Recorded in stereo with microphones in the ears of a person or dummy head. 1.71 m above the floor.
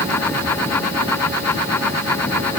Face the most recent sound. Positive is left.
No sound to turn to.